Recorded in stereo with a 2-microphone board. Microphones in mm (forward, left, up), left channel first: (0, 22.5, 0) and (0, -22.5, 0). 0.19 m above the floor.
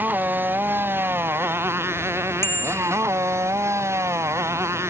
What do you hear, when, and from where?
0.0 s a motorcycle: 40° right (ahead or behind); by 4.9 s 80° right
2.4 s a bicycle bell: 65° left (ahead or behind)